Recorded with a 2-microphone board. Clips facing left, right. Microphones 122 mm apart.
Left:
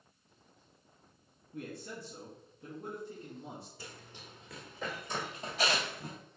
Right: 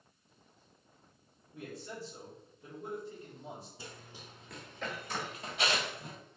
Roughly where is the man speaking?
Left.